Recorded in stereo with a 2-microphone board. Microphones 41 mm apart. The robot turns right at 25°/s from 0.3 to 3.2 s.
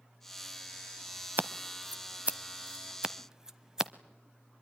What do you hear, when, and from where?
1.4 s scissors: 55° right (ahead or behind), 0.7 m; by 3.9 s 15° right (ahead or behind), 0.7 m